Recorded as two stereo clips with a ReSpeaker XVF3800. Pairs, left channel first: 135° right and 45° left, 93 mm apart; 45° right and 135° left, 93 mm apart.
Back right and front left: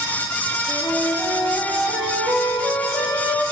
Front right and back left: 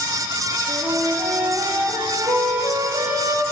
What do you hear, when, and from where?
0.7 s a flute: 130° left, 3 m